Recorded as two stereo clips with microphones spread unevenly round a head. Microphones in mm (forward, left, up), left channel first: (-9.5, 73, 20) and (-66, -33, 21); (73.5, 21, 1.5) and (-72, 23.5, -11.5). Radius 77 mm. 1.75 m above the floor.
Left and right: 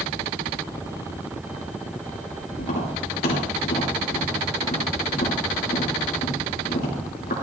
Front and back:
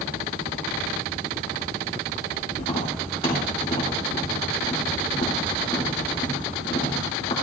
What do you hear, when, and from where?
2.6 s tapping: 50° left, 3 m